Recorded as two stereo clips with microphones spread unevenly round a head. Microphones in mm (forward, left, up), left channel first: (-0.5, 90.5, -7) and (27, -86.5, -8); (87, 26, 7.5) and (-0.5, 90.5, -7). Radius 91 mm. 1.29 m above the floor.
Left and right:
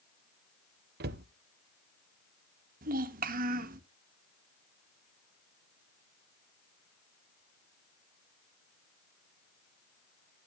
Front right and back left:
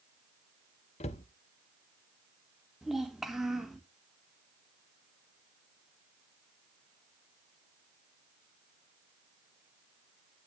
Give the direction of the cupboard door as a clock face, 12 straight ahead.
2 o'clock.